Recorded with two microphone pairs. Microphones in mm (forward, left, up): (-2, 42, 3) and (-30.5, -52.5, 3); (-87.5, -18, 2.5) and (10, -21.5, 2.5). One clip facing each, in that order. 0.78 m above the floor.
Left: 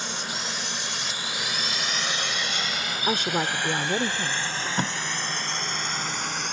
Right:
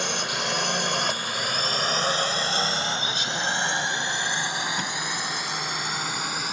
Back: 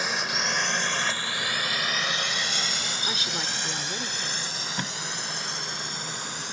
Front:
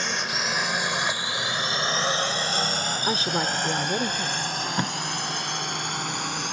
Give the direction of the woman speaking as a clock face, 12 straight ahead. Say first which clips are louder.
Left 3 dB, front 10 dB; 11 o'clock.